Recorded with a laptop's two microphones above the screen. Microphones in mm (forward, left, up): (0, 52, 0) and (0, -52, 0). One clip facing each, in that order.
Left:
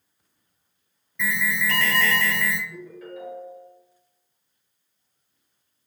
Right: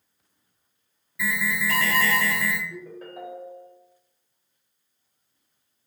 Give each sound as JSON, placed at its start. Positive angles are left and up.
{"t": 1.2, "sound": "an alarm", "side_deg": -5, "distance_m": 0.9}
{"t": 2.7, "sound": "a ringtone", "side_deg": -45, "distance_m": 1.4}